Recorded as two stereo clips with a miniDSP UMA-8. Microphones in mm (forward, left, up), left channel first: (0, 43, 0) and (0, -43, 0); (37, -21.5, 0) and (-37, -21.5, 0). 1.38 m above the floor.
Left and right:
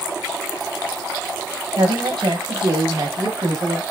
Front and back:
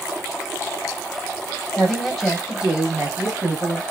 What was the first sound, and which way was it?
A woman speaking, 80° right.